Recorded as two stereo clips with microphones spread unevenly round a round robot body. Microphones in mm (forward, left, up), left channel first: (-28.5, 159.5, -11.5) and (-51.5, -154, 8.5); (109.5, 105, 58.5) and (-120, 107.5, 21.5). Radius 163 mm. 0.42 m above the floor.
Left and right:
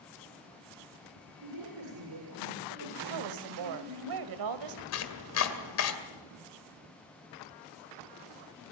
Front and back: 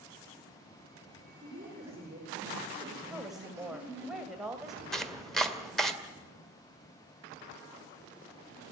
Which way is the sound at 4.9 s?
95° left.